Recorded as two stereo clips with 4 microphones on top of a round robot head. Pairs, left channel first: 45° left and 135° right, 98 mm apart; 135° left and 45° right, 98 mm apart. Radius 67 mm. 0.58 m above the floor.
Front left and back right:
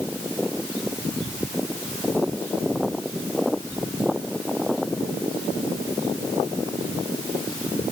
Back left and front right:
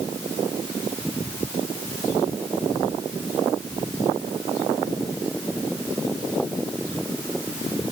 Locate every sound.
Only background noise.